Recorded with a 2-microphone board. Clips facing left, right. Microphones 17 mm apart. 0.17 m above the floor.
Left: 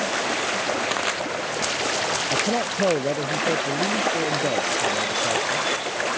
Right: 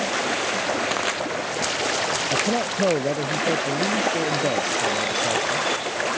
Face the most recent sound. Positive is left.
turn(degrees=0)  # may be behind; listen again after turning